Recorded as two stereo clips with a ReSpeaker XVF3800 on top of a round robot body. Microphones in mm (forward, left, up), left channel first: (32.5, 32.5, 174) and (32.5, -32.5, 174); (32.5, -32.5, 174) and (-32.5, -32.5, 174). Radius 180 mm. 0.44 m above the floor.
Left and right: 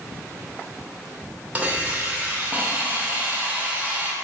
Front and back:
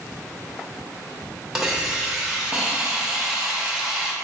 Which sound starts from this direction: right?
A hiss, at 1.6 s.